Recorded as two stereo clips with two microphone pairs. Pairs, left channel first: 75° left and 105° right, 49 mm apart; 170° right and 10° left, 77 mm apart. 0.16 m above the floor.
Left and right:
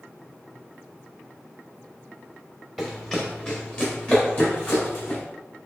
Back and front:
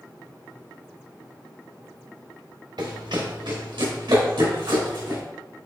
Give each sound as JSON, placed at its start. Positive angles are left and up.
{"t": 2.8, "sound": "running footsteps", "azimuth_deg": -10, "distance_m": 1.4}